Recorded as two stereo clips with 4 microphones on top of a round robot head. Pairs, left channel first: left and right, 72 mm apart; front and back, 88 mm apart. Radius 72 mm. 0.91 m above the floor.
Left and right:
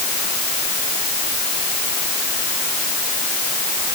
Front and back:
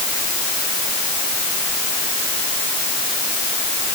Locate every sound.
Only background noise.